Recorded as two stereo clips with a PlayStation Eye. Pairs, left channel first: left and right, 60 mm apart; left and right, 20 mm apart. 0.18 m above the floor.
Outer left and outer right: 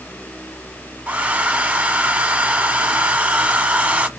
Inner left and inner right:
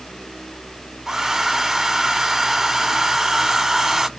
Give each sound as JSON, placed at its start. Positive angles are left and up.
{"t": 1.1, "sound": "a hair dryer", "side_deg": -20, "distance_m": 0.7}